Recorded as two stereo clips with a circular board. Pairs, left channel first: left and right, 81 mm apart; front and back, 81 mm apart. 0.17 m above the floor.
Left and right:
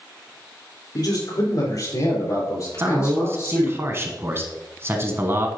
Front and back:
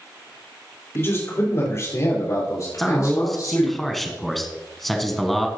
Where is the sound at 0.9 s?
60° left, 4 m; by 3.8 s 40° left, 6 m.